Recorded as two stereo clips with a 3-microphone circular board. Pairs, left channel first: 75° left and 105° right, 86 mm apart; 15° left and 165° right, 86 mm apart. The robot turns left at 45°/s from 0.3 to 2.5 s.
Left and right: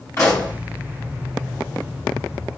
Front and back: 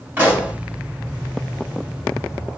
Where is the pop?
125° left, 3 m; by 0.5 s 115° left, 3 m.